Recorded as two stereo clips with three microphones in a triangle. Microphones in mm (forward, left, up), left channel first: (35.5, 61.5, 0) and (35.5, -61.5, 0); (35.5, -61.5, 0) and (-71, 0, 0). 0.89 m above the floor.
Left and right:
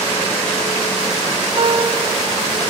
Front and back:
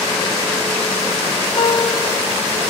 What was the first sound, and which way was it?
A piano, 55° right.